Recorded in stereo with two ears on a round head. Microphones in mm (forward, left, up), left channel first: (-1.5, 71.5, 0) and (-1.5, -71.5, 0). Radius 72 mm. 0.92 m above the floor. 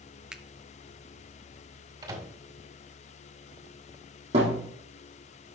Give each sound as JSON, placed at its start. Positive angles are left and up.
{"t": 0.3, "sound": "a finger snap", "side_deg": -5, "distance_m": 0.6}
{"t": 2.0, "sound": "a microwave", "side_deg": -25, "distance_m": 1.6}
{"t": 4.3, "sound": "a thud", "side_deg": -40, "distance_m": 4.0}